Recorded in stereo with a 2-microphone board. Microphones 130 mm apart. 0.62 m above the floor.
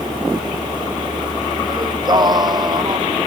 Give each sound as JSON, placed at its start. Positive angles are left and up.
{"t": 1.7, "sound": "singing", "side_deg": -35}